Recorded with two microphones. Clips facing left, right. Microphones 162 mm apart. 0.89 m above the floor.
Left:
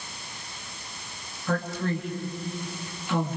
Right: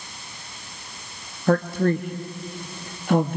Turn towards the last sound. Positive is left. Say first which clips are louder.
# right 8 dB
turn(degrees=-55)  # may be behind; listen again after turning